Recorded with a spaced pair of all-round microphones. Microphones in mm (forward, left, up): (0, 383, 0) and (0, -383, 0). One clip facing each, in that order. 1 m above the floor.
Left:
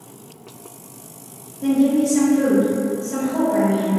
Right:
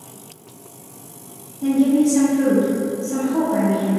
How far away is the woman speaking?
About 1.1 m.